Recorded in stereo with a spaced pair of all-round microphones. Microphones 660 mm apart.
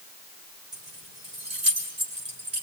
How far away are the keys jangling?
About 3.5 m.